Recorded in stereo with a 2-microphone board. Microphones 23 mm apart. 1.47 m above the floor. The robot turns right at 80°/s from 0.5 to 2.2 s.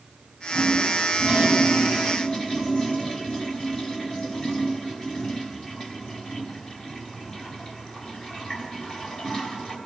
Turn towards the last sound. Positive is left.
turn(degrees=35)